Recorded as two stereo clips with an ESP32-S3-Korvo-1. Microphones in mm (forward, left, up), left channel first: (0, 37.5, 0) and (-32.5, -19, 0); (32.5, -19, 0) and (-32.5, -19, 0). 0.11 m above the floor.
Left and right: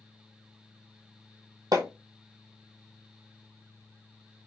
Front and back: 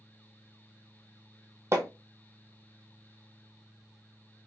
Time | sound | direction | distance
1.7 | hammering | 135° right | 1.1 m